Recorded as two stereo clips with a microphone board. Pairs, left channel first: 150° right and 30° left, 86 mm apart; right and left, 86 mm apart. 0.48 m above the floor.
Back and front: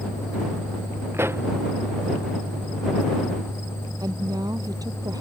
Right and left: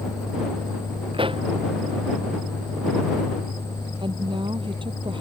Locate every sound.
1.1 s a pop: 90° left
4.0 s a woman speaking: 75° left